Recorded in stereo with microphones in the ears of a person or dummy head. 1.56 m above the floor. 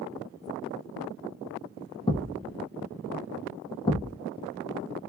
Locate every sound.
2.1 s a thud: 25° left (ahead or behind), 0.9 m